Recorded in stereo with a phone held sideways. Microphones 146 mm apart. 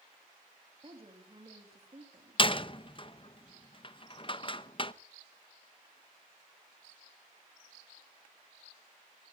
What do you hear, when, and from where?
0.8 s a woman speaking: 40° right (ahead or behind), 3.5 m
2.4 s a door slam: 35° left (ahead or behind), 0.7 m